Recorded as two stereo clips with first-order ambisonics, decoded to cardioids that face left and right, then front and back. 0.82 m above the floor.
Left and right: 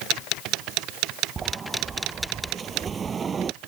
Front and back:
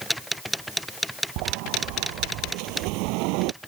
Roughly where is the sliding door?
Behind.